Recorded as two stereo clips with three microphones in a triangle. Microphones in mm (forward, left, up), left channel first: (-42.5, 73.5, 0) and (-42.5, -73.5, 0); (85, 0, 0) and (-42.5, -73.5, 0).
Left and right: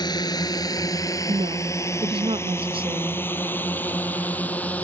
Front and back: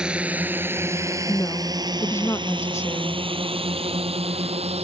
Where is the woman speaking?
40° right.